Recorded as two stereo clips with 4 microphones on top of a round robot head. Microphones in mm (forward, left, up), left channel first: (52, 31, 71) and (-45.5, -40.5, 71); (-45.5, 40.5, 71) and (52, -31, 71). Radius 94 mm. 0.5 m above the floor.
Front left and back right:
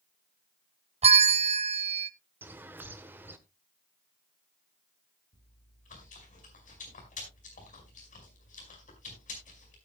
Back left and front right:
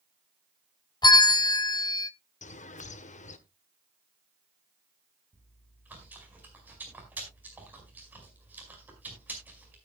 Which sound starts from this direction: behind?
A bell, at 1.0 s.